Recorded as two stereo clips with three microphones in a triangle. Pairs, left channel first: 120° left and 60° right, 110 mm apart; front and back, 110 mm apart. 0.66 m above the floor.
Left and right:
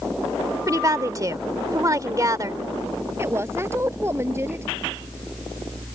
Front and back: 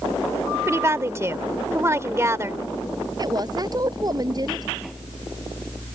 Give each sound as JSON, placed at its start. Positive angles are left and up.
{"t": 0.7, "sound": "a woman speaking", "azimuth_deg": -115}
{"t": 3.2, "sound": "a woman speaking", "azimuth_deg": -125}